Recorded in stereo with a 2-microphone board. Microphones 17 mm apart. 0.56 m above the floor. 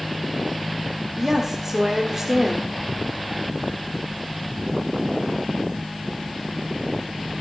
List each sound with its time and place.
1.2 s a woman speaking: 25° right (ahead or behind), 1.4 m